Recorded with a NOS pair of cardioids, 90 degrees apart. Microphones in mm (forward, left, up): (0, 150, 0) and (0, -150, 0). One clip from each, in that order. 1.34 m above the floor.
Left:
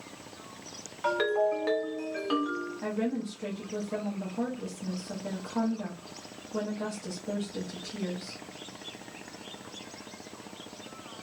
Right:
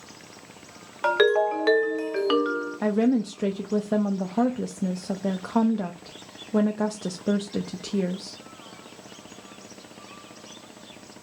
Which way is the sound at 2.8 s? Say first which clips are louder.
Right 11 dB; 60° right.